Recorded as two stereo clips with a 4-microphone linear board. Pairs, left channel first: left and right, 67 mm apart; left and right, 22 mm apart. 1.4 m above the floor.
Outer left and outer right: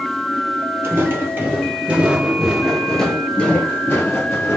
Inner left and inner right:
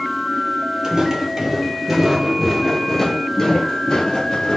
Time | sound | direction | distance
0.8 | footsteps | 35° right (ahead or behind) | 1.8 m